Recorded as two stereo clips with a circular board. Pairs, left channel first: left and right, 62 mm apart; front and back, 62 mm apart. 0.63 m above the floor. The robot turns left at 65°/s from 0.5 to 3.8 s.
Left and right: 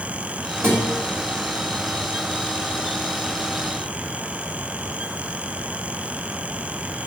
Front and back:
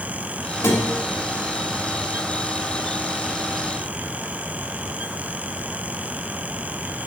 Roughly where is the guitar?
Ahead right.